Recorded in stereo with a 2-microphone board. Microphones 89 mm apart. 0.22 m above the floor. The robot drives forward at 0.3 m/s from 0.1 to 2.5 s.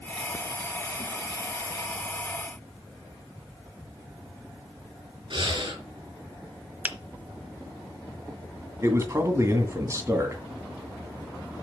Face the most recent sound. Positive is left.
turn(degrees=-35)  # may be behind; listen again after turning